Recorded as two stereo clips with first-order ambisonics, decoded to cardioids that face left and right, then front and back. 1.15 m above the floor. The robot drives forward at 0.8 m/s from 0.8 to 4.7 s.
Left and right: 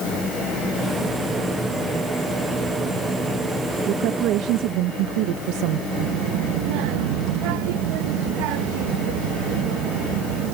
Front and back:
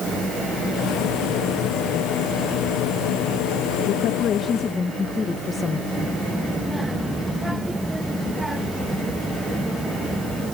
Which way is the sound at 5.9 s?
95° right.